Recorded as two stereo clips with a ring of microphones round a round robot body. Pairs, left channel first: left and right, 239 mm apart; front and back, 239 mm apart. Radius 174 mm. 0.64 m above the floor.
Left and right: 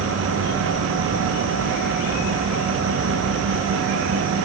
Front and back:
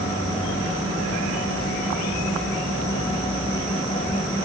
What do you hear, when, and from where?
Only background noise.